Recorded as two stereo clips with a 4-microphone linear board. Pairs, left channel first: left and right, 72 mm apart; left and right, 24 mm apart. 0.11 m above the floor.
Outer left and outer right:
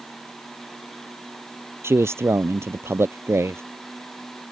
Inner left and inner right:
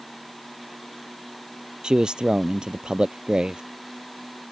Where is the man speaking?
35° right (ahead or behind).